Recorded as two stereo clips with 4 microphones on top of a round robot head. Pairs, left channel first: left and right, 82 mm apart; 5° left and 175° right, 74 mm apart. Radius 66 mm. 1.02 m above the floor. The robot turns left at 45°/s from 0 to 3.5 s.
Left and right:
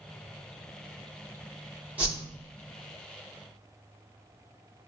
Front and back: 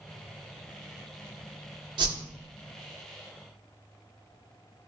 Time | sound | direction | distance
2.0 | a whoosh | 165° right | 0.7 m